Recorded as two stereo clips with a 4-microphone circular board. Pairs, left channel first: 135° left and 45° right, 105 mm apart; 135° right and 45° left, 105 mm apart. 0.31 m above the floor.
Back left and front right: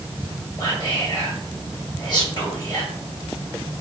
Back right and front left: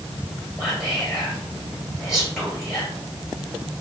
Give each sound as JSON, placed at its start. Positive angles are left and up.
{"t": 0.6, "sound": "whispering", "azimuth_deg": 135, "distance_m": 1.0}